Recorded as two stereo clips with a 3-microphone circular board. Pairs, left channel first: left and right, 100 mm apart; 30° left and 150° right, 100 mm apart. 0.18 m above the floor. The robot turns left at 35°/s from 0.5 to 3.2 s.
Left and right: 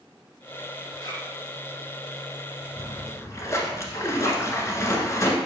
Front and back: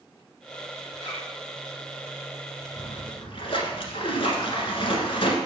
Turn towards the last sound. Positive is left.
turn(degrees=35)